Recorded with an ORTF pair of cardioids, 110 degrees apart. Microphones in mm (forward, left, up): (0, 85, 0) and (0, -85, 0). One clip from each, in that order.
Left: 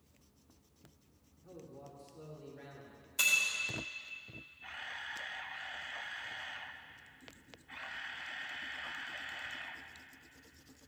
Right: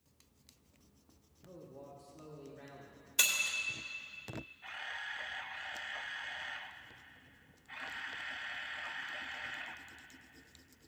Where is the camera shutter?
5° right, 0.5 m.